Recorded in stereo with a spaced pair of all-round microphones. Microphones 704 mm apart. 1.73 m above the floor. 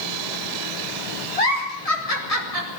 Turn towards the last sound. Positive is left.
turn(degrees=55)  # may be behind; listen again after turning